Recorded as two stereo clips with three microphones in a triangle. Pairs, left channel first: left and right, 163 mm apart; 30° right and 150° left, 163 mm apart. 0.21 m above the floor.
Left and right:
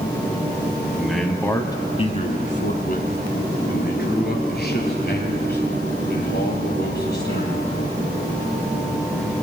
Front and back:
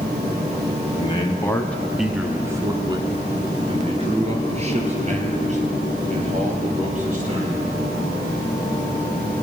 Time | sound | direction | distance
1.0 | a man speaking | 10° right | 1.1 m